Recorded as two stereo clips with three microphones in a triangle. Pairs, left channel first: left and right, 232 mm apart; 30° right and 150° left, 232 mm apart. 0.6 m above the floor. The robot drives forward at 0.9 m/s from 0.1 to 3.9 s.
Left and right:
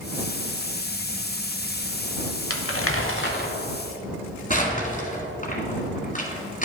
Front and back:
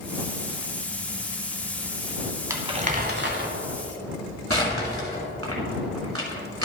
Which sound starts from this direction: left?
Crumpling, at 2.5 s.